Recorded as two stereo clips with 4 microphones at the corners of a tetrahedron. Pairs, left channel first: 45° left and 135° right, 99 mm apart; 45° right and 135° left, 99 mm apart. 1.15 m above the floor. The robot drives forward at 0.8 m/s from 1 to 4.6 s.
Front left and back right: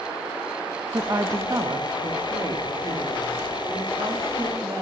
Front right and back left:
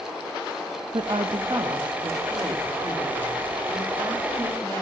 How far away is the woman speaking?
About 0.8 m.